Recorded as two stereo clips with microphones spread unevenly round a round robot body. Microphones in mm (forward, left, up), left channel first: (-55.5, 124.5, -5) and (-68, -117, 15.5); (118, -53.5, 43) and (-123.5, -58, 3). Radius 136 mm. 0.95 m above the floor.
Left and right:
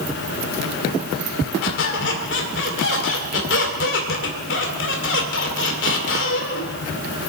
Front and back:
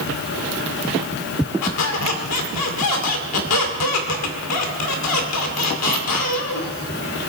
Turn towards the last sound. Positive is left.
turn(degrees=35)